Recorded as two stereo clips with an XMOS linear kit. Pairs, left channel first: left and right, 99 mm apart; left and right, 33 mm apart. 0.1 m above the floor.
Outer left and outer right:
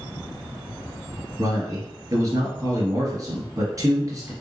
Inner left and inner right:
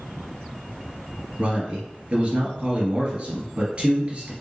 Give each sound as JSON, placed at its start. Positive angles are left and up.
{"t": 1.4, "sound": "a man speaking", "side_deg": -35, "distance_m": 1.7}